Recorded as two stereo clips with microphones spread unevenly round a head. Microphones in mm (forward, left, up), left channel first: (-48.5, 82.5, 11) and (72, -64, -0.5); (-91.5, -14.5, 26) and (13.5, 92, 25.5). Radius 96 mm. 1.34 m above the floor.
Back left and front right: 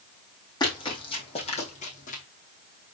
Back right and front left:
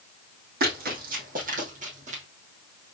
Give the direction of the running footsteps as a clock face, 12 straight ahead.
10 o'clock.